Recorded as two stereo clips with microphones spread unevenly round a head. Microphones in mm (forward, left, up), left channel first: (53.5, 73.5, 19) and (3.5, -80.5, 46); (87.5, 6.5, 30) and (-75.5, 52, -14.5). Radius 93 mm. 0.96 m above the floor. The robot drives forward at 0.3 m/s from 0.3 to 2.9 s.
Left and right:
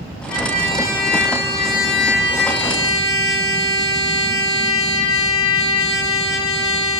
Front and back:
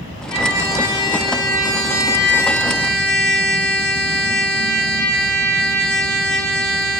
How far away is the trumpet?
About 1.5 m.